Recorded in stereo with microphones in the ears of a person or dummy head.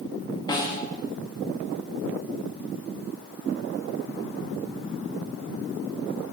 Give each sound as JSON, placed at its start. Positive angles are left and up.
{"t": 0.5, "sound": "a snare drum", "side_deg": 20, "distance_m": 1.3}